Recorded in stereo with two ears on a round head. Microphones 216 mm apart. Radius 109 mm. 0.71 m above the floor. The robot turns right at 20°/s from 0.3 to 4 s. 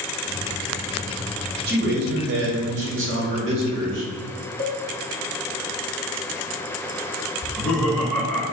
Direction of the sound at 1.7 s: 125° right.